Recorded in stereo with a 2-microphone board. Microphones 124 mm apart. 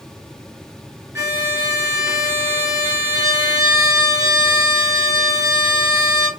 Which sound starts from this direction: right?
A violin, at 1.1 s.